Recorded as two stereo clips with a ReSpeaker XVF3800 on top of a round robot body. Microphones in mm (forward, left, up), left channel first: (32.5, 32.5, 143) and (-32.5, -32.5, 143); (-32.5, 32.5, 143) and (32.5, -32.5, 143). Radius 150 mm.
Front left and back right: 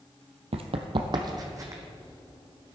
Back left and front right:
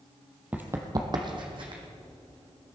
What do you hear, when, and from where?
0.5 s running footsteps: 120° right, 0.9 m; by 1.8 s 80° right, 1.9 m